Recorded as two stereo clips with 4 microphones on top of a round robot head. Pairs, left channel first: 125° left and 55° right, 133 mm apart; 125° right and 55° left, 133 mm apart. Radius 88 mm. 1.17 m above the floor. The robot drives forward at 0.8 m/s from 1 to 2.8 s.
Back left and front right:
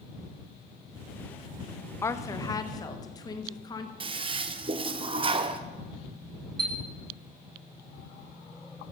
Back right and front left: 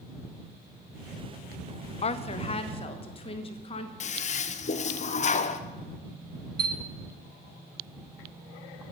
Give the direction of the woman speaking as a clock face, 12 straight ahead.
5 o'clock.